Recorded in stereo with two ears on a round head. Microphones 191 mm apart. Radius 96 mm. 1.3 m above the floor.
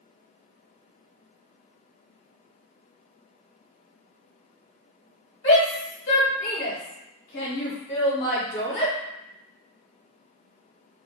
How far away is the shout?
About 1.3 m.